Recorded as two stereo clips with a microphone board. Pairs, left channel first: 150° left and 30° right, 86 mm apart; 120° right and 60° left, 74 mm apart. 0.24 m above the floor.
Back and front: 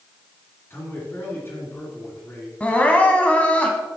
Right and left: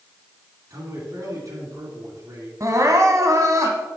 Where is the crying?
80° left, 1.1 m.